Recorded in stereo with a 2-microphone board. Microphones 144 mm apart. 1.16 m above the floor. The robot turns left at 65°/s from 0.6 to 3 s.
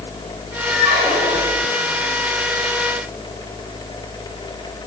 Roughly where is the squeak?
Ahead right.